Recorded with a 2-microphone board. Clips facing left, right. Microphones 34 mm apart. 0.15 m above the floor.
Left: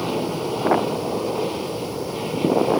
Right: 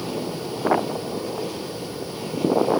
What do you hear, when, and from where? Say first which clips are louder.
0.0 s an aircraft: left 4 dB; 30° left (ahead or behind); by 2.8 s 25° left (ahead or behind)